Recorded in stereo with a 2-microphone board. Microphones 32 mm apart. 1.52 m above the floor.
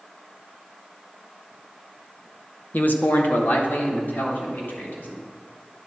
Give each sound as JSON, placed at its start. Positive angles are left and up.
{"t": 2.7, "sound": "a man speaking", "side_deg": 70, "distance_m": 0.8}